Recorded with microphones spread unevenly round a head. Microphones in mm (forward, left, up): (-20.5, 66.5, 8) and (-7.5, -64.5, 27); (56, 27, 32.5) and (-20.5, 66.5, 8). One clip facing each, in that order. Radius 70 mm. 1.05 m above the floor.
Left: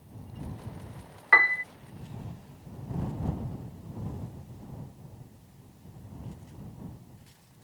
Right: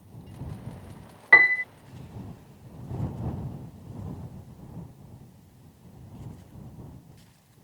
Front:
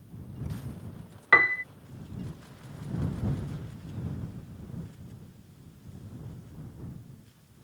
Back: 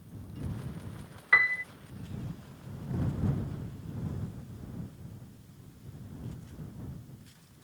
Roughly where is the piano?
Ahead.